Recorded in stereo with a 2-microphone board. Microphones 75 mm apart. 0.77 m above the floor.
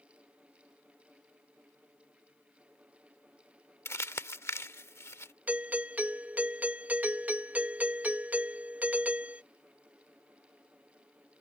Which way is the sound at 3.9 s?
35° left (ahead or behind).